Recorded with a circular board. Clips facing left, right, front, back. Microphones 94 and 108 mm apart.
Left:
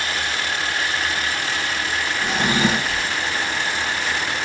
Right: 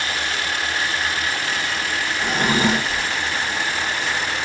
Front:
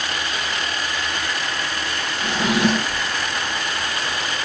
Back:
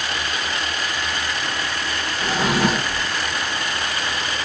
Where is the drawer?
130° right, 2 m.